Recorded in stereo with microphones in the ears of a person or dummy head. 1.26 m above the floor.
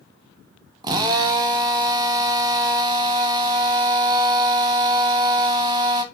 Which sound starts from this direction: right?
A drill, at 0.8 s.